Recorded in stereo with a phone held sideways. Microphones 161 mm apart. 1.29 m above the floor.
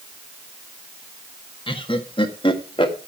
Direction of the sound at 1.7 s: 35° left (ahead or behind).